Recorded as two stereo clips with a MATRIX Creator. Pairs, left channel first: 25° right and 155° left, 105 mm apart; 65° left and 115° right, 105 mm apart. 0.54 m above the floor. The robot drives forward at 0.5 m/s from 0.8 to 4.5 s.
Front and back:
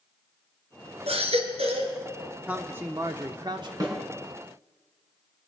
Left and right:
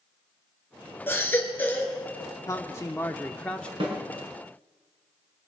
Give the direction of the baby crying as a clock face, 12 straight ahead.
7 o'clock.